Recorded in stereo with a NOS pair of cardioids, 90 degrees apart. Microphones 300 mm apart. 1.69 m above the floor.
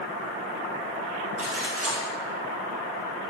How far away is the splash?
About 2.5 m.